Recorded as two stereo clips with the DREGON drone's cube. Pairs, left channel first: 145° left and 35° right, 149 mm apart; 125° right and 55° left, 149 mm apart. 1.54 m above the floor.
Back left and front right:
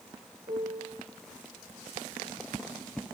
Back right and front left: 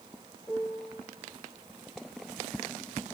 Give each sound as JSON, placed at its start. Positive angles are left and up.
{"t": 0.5, "sound": "a piano", "azimuth_deg": -45, "distance_m": 2.0}